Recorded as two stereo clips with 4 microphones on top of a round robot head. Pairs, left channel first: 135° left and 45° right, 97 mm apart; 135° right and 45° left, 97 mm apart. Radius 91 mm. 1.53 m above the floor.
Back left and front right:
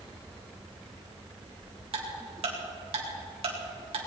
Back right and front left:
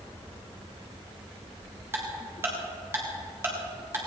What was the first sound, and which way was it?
Ticking, 20° right.